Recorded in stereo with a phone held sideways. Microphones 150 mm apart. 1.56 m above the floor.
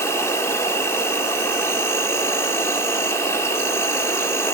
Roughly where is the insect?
Centre.